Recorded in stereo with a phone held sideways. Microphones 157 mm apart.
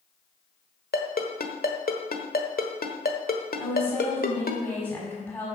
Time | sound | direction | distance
0.9 | a ringtone | 70° left (ahead or behind) | 1.3 m
3.6 | a woman speaking | 10° left (ahead or behind) | 5.5 m